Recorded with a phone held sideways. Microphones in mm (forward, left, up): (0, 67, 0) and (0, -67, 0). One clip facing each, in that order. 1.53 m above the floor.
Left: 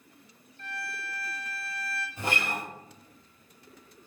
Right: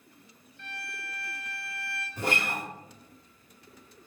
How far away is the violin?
About 1.0 m.